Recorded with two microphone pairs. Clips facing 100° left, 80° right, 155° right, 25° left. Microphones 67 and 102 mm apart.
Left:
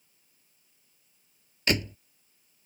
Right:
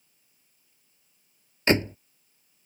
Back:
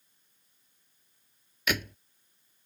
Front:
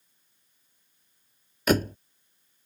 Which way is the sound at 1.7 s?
25° right.